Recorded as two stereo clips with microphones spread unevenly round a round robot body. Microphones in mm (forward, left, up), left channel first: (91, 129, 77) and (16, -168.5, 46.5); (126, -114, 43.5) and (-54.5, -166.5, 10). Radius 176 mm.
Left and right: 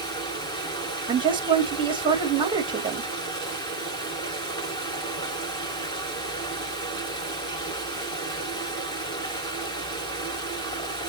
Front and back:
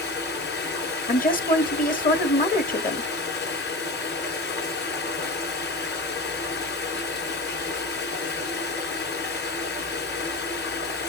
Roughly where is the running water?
Ahead.